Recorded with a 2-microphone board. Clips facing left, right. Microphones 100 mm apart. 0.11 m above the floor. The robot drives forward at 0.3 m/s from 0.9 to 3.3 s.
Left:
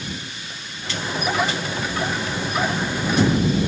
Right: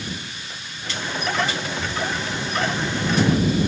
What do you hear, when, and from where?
1.8 s breathing: 70° right (ahead or behind), 1.3 m; by 2.0 s 75° right (ahead or behind), 1.3 m